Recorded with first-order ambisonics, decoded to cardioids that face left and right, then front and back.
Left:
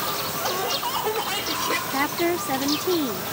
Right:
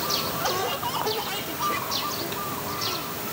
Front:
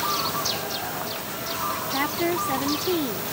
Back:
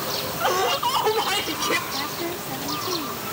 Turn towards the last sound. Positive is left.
turn(degrees=65)